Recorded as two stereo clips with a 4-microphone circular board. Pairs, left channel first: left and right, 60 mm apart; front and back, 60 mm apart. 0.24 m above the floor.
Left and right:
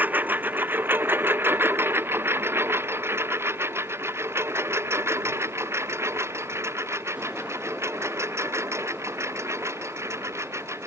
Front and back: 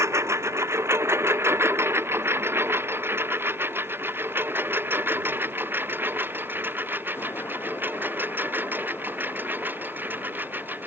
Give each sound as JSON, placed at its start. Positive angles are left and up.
{"t": 0.0, "sound": "a lawn mower", "azimuth_deg": -150}